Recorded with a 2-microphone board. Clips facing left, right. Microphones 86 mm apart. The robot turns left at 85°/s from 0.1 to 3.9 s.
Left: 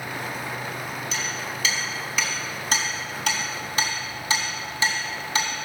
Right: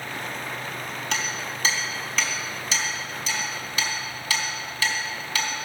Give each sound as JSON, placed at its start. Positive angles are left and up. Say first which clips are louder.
{"t": 1.1, "sound": "hammering", "louder": "right 1 dB", "side_deg": -70, "distance_m": 3.5}